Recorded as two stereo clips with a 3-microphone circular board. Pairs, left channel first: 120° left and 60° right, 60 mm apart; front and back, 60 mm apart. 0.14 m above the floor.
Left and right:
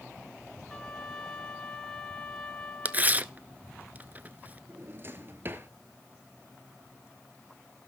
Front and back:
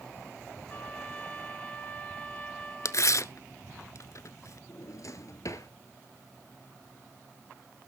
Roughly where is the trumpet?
Ahead left.